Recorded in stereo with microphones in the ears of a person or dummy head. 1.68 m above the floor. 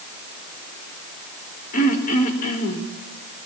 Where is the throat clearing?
50° left (ahead or behind), 4.5 m.